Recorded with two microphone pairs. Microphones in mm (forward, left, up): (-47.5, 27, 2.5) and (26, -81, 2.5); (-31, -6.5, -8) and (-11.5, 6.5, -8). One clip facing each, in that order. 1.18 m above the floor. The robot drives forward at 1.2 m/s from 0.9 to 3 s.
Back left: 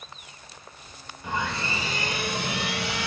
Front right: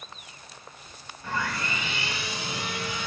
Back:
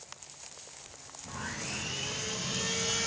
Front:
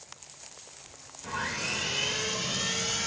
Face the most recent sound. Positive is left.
turn(degrees=125)